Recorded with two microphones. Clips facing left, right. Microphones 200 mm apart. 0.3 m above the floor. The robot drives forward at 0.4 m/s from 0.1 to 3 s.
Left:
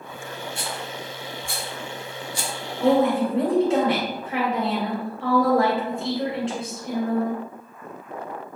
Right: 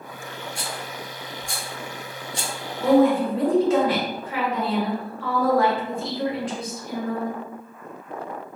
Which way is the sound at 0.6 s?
15° right (ahead or behind).